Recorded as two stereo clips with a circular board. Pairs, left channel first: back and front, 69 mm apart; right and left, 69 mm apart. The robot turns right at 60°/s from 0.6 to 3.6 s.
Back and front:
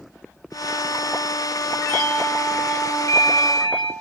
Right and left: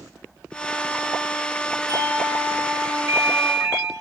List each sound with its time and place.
1.9 s a doorbell: 65° left, 9.5 m; by 3.9 s 165° left, 9.5 m